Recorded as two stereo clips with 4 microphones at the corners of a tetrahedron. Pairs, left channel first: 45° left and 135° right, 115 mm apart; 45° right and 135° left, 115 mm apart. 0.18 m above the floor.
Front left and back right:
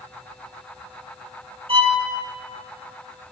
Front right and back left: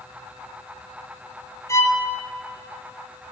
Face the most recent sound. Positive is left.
turn(degrees=-105)